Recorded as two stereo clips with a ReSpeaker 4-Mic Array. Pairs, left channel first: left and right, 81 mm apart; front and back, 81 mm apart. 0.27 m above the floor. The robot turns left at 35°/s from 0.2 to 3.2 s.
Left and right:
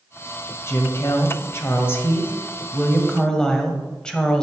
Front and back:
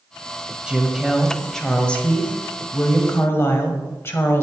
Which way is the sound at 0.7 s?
110° left.